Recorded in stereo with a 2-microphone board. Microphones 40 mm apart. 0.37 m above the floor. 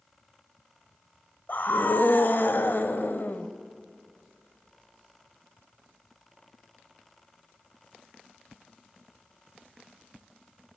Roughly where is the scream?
Left.